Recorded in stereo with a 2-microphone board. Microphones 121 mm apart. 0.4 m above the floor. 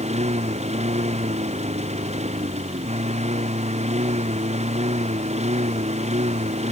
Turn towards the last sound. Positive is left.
turn(degrees=-65)  # may be behind; listen again after turning